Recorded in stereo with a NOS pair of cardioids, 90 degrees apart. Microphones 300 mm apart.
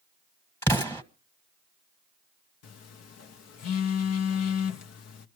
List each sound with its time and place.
0.6 s an explosion: 5° left, 1.5 m
2.6 s a phone buzzing: 60° left, 0.9 m